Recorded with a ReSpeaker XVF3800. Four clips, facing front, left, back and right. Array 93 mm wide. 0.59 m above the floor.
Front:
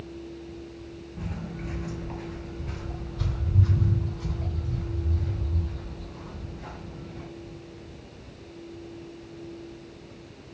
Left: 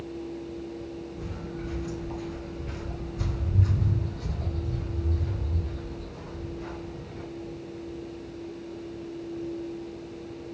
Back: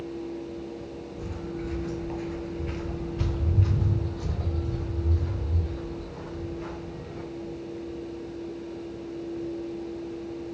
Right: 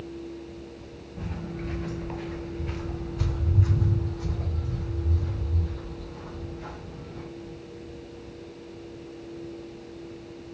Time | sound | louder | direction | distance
1.2 | footsteps | right 1 dB, back 2 dB | 45° right | 0.8 m